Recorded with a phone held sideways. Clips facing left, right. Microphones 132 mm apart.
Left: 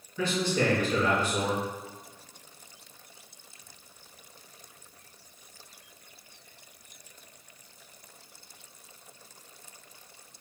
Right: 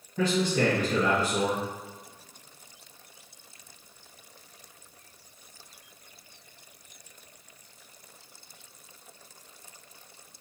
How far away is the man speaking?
About 1.8 m.